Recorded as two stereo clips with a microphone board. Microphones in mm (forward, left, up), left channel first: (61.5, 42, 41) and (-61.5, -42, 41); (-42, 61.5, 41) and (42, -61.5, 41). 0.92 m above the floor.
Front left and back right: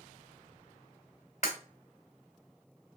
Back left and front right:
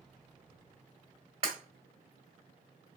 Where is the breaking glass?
5° right, 2 m.